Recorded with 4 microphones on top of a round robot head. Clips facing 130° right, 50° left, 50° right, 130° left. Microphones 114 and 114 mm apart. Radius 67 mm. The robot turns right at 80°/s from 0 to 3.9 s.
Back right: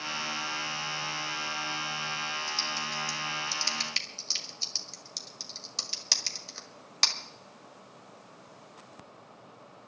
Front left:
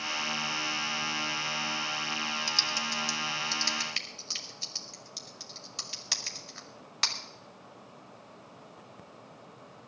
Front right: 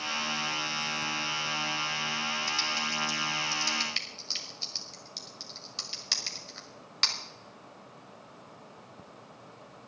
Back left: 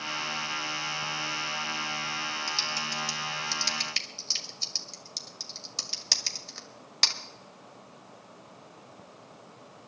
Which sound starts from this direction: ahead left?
Typing on a keyboard, at 2.5 s.